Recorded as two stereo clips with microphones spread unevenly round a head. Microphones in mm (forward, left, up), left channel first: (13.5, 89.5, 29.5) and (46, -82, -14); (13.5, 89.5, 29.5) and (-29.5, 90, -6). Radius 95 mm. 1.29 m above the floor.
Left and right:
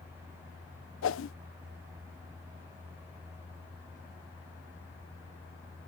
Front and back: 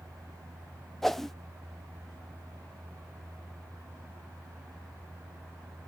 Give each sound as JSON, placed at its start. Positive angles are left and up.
{"t": 1.0, "sound": "a whoosh", "azimuth_deg": 110}